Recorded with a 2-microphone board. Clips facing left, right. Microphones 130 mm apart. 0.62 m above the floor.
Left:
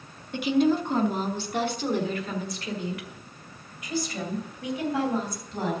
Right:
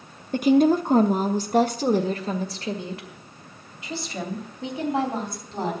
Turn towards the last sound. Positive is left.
turn(degrees=-25)  # may be behind; listen again after turning